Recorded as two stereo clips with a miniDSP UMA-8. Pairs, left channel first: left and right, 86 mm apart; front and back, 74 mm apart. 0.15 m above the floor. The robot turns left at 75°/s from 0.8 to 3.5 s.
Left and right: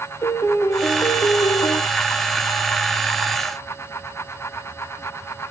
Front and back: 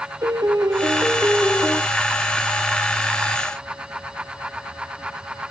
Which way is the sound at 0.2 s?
145° left.